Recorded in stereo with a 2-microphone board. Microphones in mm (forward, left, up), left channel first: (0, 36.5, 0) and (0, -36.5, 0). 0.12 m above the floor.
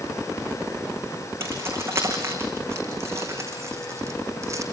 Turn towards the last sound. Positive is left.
turn(degrees=-45)  # may be behind; listen again after turning